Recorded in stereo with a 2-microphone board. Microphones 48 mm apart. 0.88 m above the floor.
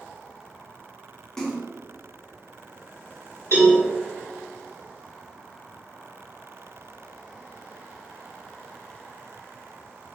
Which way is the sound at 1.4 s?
10° left (ahead or behind).